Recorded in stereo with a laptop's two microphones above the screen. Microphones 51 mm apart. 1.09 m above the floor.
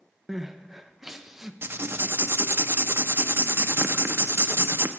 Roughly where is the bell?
I don't hear a bell.